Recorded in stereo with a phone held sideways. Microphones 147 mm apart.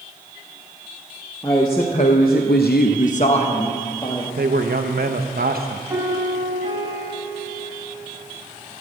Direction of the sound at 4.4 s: 75° right (ahead or behind).